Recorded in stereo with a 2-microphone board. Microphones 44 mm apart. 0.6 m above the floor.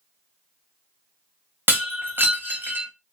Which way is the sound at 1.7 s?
55° right (ahead or behind).